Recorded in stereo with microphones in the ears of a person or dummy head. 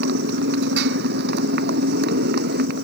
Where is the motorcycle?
65° right (ahead or behind); by 2.8 s 60° right (ahead or behind).